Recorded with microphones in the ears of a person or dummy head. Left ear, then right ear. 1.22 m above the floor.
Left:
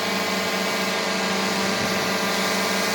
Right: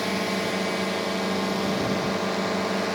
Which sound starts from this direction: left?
A drone, at 0.0 s.